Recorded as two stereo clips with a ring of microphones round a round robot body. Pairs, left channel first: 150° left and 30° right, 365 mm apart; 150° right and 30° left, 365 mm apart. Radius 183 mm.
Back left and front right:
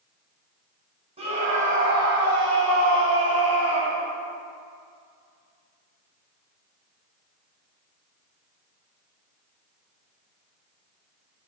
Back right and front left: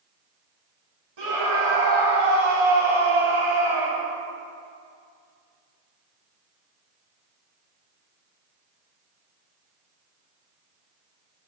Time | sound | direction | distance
1.2 | a scream | 45° left | 3 m